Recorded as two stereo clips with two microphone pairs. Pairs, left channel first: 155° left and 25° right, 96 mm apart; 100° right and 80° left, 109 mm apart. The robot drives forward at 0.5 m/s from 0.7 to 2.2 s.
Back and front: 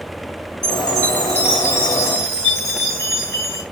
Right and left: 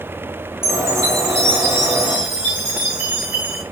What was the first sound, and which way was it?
A chime, 115° right.